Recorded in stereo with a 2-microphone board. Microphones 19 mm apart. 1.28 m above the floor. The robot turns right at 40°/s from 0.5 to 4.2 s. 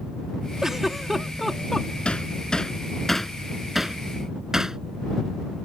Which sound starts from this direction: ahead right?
A giggle, at 0.6 s.